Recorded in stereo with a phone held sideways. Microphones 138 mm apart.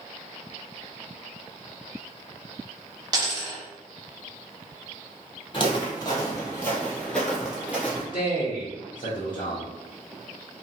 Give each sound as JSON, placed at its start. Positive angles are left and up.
{"t": 3.1, "sound": "a dropped coin", "side_deg": -30, "distance_m": 1.0}
{"t": 5.5, "sound": "footsteps", "side_deg": 40, "distance_m": 1.8}
{"t": 8.1, "sound": "a man speaking", "side_deg": 70, "distance_m": 0.7}